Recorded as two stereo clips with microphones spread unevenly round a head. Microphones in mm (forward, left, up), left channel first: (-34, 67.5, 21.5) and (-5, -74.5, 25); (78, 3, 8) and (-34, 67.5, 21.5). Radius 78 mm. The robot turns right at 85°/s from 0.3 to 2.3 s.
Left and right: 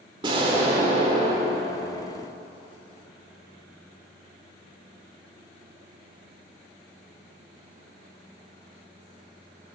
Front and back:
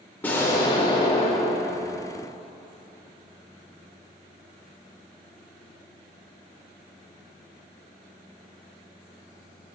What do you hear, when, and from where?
0.2 s an explosion: 110° right, 1.5 m; by 2.0 s 30° left, 1.5 m